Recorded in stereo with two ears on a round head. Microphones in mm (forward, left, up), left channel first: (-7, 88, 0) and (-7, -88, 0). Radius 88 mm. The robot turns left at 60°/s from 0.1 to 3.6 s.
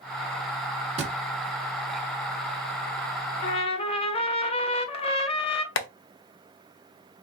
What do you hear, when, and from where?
1.0 s a thud: 35° right (ahead or behind), 0.9 m; by 1.1 s 40° right (ahead or behind), 0.9 m
3.4 s a trumpet: 40° left (ahead or behind), 0.6 m; by 5.7 s 30° left (ahead or behind), 0.6 m
5.8 s tapping: 70° left (ahead or behind), 0.6 m